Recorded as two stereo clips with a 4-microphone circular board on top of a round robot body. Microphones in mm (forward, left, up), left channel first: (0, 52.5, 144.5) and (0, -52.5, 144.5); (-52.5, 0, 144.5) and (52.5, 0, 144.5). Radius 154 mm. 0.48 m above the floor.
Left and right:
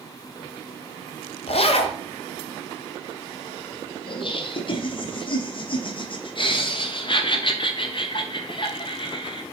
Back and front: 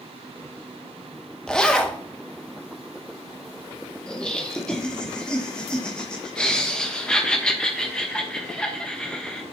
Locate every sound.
1.5 s a zipper: 100° left, 1.0 m
4.1 s laughter: 100° left, 1.1 m